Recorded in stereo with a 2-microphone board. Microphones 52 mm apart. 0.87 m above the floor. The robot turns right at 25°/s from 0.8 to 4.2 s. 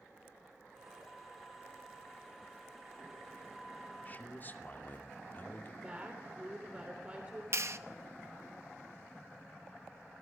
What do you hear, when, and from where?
4.0 s a man speaking: 30° left (ahead or behind), 2.5 m; by 5.7 s 35° left (ahead or behind), 2.5 m
5.8 s a woman speaking: 25° right (ahead or behind), 3.5 m
7.5 s a clap: 55° right (ahead or behind), 1.0 m